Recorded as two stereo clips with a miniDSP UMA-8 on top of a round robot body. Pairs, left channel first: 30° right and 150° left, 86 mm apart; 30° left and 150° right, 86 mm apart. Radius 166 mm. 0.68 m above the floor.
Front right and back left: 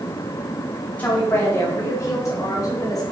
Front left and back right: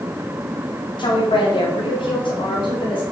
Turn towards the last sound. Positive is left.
turn(degrees=20)